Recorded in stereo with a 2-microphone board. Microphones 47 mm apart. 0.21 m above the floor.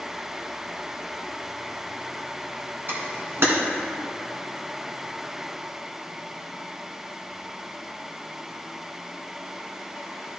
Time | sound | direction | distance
2.9 | a camera shutter | 55° right (ahead or behind) | 2 m